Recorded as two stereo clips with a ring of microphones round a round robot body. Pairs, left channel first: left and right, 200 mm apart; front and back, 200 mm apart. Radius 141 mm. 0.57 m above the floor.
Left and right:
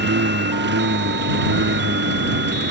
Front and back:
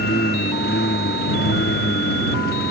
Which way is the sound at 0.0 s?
60° right.